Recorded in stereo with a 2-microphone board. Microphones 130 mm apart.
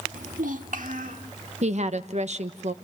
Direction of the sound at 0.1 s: 85° right.